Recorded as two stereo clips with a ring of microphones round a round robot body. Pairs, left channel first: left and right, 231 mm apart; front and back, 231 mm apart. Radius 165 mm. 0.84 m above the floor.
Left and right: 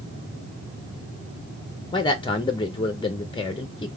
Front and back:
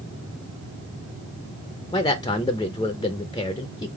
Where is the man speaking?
50° left, 0.6 m.